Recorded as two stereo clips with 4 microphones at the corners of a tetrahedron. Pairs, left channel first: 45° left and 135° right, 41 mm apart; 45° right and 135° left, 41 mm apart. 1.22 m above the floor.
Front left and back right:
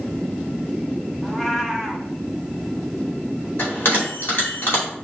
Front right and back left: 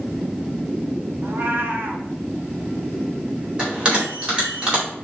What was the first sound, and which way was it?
A cat meowing, 130° left.